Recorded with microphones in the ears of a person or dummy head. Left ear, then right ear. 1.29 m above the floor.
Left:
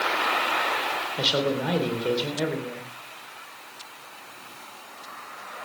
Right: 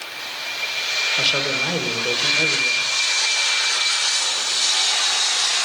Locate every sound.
1.2 s a man speaking: 5° right (ahead or behind), 4 m